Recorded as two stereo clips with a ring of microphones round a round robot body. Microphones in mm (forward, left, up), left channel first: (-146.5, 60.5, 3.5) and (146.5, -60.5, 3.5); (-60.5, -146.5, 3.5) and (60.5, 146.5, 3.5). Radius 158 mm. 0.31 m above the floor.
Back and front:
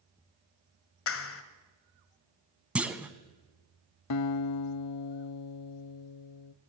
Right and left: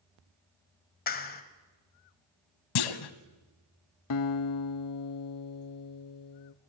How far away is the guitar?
About 0.5 m.